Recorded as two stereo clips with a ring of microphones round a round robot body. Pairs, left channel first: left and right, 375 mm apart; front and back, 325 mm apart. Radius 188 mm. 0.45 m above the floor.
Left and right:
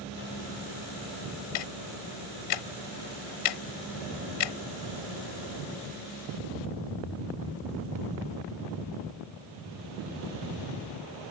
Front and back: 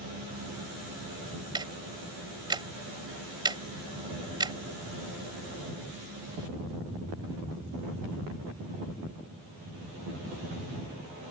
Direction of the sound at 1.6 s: 105° left.